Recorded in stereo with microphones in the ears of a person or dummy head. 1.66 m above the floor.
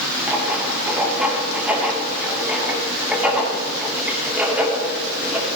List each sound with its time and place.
0.3 s writing: 10° right (ahead or behind), 2.5 m